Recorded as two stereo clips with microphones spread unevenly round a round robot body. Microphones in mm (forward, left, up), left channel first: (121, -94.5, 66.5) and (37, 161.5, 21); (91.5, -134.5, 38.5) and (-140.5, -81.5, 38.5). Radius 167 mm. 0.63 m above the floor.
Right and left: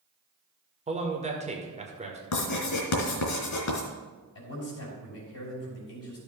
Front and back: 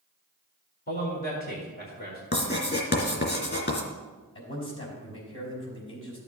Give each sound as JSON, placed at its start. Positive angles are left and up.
{"t": 0.9, "sound": "a man speaking", "azimuth_deg": 45, "distance_m": 1.8}
{"t": 2.3, "sound": "writing", "azimuth_deg": -55, "distance_m": 2.5}
{"t": 4.3, "sound": "a man speaking", "azimuth_deg": -40, "distance_m": 4.5}